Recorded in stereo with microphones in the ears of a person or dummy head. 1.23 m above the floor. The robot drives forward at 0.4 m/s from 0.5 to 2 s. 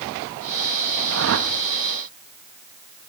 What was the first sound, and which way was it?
A whoosh, 70° right (ahead or behind).